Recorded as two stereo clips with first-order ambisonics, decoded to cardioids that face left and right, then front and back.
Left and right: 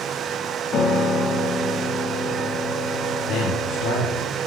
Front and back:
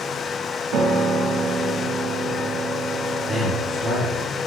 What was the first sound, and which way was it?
A piano, 150° left.